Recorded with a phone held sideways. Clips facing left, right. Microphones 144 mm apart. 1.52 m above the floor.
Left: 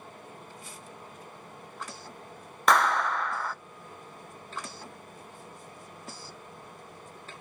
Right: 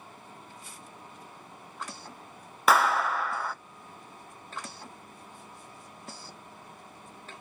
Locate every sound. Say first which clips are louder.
0.0 s a fan: left 3 dB; 60° left (ahead or behind), 4.5 m
2.7 s a clap: even; 5° right (ahead or behind), 0.5 m